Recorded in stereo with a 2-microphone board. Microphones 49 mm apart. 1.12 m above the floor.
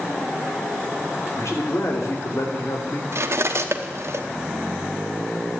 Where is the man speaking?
75° left (ahead or behind), 3 m.